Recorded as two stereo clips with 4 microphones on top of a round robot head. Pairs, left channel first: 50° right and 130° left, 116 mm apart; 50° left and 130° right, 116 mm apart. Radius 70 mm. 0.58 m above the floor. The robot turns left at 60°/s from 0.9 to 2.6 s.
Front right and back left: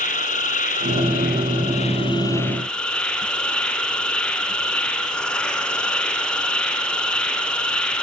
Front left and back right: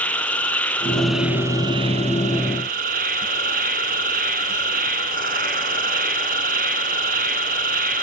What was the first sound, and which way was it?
An insect, 30° right.